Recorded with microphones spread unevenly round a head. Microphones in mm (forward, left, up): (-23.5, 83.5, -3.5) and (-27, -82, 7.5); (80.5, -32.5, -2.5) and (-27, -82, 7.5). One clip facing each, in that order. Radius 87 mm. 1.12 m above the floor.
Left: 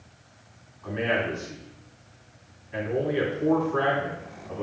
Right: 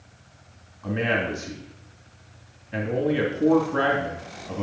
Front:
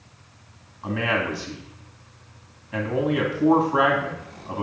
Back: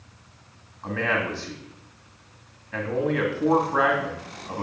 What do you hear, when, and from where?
0.8 s a man speaking: 50° right, 2.5 m